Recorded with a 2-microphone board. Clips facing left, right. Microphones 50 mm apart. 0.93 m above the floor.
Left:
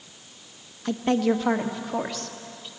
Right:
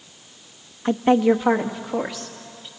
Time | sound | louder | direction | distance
0.8 | a woman speaking | right 6 dB | 30° right (ahead or behind) | 0.7 m